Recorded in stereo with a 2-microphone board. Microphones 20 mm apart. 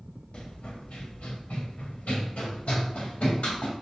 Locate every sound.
0.3 s running footsteps: 55° left (ahead or behind), 1.2 m; by 3.7 s 70° left (ahead or behind), 2 m